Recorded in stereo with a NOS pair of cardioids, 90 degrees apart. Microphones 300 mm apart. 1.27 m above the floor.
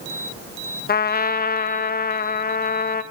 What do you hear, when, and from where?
0.9 s a trumpet: 30° left, 1.3 m